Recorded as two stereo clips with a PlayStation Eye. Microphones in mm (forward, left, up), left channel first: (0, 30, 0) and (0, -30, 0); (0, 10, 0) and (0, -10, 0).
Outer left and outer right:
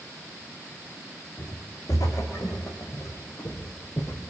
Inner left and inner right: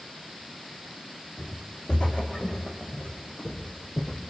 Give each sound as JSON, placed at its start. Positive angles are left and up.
{"t": 1.4, "sound": "footsteps", "side_deg": 75, "distance_m": 5.0}